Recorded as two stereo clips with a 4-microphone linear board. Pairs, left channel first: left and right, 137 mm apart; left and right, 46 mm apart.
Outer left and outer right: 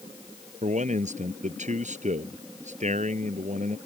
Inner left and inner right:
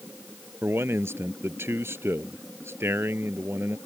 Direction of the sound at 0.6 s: 60° right (ahead or behind).